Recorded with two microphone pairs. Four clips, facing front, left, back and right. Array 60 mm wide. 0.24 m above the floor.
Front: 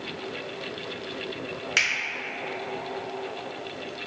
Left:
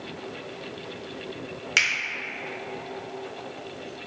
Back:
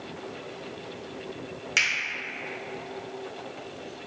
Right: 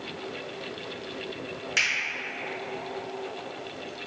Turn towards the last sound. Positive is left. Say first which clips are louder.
# left 3 dB, even
turn(degrees=65)